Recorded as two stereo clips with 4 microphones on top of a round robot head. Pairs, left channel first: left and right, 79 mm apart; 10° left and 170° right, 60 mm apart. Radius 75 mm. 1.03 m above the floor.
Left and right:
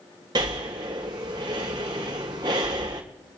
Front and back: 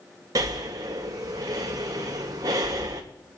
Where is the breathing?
130° right, 1.7 m.